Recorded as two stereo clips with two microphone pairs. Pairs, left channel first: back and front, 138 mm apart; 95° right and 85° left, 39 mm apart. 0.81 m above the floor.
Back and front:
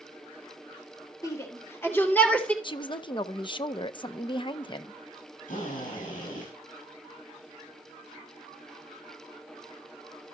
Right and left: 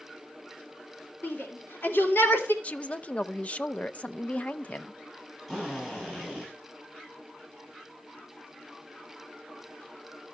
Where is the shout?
115° right, 3 m; by 2.5 s 100° right, 2.5 m.